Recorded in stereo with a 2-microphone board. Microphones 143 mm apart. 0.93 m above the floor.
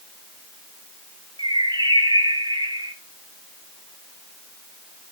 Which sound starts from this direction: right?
A bird, at 1.4 s.